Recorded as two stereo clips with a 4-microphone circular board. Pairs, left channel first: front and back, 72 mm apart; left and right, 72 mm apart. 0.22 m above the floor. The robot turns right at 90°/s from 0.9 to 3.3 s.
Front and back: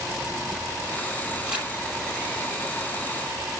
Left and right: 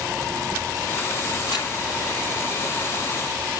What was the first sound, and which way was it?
Crumpling, 95° left.